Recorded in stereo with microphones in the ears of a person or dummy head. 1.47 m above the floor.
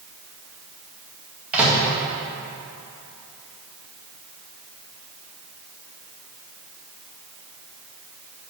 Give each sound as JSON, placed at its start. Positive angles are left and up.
{"t": 1.5, "sound": "a microwave", "side_deg": -5, "distance_m": 1.6}